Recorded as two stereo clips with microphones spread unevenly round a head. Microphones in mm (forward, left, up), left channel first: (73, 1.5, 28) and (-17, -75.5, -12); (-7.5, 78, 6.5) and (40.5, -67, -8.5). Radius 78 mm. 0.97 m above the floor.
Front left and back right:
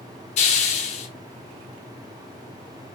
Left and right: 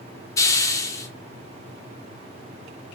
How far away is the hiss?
About 0.7 m.